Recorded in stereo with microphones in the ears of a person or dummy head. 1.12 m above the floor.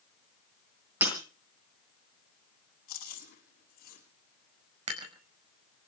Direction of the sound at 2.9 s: 55° left (ahead or behind).